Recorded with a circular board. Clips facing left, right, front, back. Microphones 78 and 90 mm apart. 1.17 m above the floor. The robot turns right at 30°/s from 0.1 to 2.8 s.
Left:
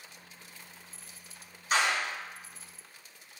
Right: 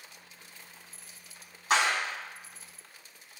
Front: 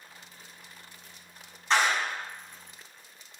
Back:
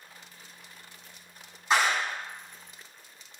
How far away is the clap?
About 1.9 m.